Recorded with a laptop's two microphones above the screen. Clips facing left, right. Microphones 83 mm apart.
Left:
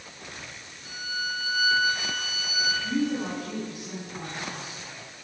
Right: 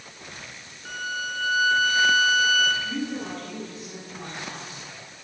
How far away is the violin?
About 1.8 m.